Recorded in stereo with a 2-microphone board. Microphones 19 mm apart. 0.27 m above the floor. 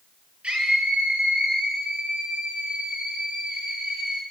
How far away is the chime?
No chime in this recording.